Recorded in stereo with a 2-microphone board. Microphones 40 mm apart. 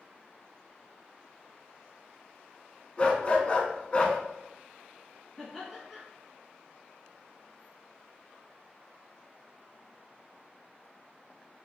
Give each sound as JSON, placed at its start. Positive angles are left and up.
{"t": 3.0, "sound": "a dog barking", "side_deg": 30, "distance_m": 0.5}
{"t": 5.4, "sound": "laughter", "side_deg": 10, "distance_m": 1.5}